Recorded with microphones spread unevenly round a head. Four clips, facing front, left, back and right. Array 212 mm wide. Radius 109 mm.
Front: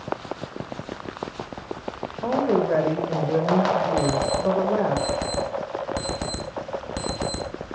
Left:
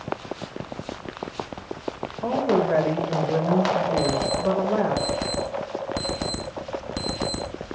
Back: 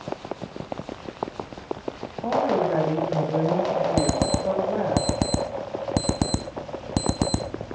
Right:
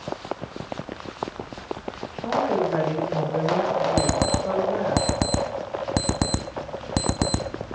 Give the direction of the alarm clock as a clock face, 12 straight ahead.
4 o'clock.